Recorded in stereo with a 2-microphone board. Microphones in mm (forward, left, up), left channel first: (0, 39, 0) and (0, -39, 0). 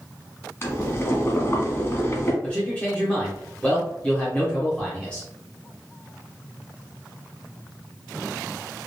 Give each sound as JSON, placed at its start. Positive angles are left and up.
{"t": 0.6, "sound": "boiling", "side_deg": 35, "distance_m": 0.8}
{"t": 2.4, "sound": "a man speaking", "side_deg": 15, "distance_m": 0.9}